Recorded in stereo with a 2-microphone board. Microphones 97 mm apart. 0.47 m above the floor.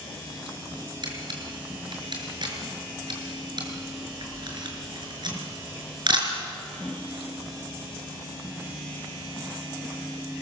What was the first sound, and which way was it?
A camera shutter, 50° right (ahead or behind).